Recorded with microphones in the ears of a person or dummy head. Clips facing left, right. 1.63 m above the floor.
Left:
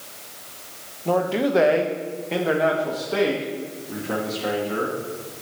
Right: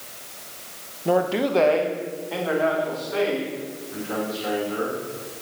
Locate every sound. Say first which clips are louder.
1.1 s a man speaking: even; 20° right (ahead or behind), 0.6 m; by 5.0 s 55° left (ahead or behind), 2 m